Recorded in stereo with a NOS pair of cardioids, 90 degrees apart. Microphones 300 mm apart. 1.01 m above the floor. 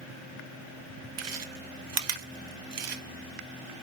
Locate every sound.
1.2 s chewing: 55° right, 0.8 m